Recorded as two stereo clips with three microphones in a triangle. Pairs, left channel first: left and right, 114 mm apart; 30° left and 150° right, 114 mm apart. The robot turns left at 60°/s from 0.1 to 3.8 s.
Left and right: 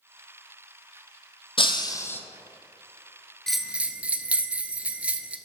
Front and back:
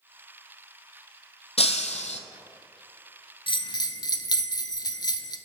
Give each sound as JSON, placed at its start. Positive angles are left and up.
{"t": 1.6, "sound": "breaking glass", "azimuth_deg": 55, "distance_m": 0.6}
{"t": 3.5, "sound": "a bell", "azimuth_deg": 5, "distance_m": 0.5}